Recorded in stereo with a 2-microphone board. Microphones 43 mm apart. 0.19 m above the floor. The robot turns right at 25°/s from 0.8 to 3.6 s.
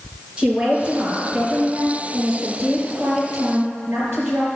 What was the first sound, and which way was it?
A woman speaking, 160° right.